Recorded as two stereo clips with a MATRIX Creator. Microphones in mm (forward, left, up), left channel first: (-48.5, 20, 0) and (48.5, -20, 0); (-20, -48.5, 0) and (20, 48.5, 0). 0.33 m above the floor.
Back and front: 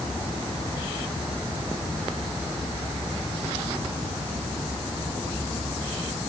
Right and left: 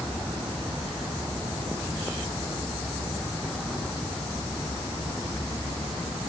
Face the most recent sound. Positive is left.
No sound to turn to.